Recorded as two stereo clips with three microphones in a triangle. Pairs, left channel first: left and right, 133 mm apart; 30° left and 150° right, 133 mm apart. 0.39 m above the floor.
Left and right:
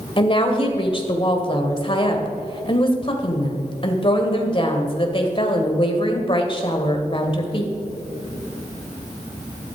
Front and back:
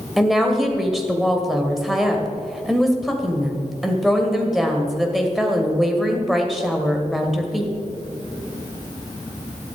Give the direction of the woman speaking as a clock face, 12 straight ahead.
8 o'clock.